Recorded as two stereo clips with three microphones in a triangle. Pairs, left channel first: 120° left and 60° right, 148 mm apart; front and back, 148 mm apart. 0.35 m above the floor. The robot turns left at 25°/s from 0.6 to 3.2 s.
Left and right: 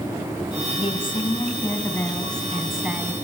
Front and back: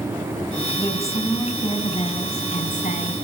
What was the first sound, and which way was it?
A woman speaking, 75° left.